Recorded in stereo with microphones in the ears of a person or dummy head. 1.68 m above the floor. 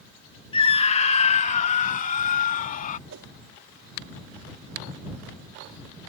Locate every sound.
0.5 s a scream: 25° left (ahead or behind); by 3.0 s 40° left (ahead or behind)
3.1 s a whoosh: 70° right (ahead or behind)